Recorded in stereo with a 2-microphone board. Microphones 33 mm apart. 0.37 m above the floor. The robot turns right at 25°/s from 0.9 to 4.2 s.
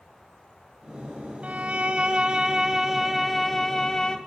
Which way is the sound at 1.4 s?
50° right.